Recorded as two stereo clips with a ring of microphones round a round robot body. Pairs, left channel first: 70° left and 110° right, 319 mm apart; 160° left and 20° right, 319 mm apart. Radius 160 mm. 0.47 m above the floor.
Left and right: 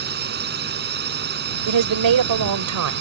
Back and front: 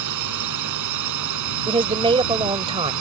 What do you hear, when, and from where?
0.0 s a drone: 55° right
1.7 s a woman speaking: 95° right